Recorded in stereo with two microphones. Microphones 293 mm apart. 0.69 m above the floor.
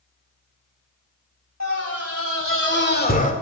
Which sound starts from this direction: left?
A scream, at 1.6 s.